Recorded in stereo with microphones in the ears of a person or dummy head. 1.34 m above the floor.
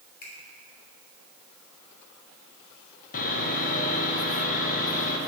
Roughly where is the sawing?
Left.